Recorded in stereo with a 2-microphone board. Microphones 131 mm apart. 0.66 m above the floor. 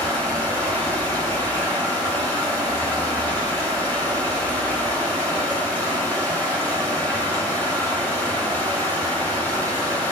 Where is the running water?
15° left (ahead or behind), 1.9 m.